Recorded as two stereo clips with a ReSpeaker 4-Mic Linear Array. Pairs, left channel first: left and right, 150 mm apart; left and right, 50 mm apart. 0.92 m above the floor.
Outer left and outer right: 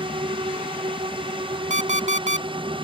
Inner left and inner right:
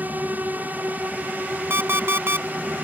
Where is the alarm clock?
55° right (ahead or behind).